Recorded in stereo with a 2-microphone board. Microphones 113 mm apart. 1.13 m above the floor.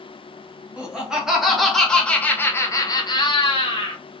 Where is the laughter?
10° right (ahead or behind), 1.6 m; by 4.0 s 50° left (ahead or behind), 1.0 m.